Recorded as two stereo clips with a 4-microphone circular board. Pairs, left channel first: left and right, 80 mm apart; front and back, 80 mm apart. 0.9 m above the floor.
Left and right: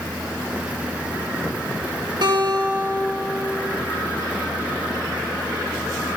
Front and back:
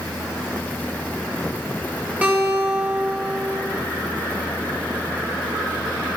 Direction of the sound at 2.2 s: 110° right.